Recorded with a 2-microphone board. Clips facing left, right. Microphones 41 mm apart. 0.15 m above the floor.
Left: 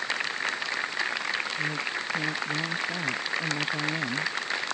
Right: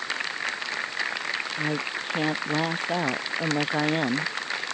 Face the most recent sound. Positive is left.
turn(degrees=-50)  # may be behind; listen again after turning